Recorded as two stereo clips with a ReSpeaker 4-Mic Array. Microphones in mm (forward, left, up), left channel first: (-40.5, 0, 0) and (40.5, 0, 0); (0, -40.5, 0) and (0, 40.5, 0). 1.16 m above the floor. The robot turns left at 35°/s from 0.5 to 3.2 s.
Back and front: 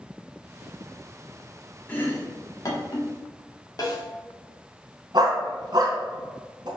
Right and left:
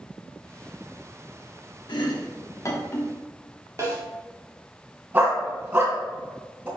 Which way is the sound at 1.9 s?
110° right.